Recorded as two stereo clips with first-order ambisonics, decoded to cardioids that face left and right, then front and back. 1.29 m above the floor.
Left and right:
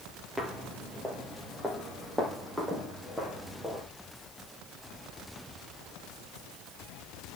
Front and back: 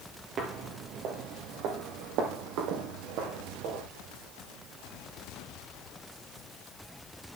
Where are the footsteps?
165° right, 1.5 m; by 3.8 s 175° right, 3.5 m.